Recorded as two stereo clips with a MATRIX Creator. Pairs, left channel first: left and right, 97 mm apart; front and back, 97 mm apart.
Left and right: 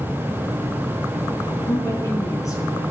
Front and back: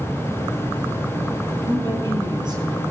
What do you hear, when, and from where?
1.7 s a woman speaking: 140° left, 4 m